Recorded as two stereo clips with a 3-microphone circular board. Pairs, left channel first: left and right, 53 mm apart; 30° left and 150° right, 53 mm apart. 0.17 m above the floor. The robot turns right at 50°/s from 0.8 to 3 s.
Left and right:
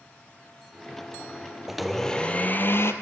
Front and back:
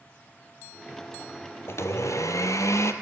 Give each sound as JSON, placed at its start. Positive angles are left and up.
{"t": 1.7, "sound": "a blender", "azimuth_deg": -10, "distance_m": 1.5}